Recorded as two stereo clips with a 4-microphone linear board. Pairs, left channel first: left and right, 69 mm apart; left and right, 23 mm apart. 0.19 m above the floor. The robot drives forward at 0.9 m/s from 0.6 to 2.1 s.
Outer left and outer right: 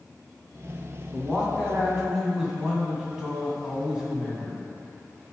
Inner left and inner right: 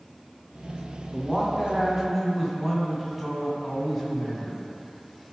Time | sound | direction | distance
1.1 | a man speaking | 10° right (ahead or behind) | 2 m